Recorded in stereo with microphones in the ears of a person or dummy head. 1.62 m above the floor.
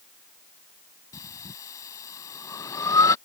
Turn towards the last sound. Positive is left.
turn(degrees=15)  # may be behind; listen again after turning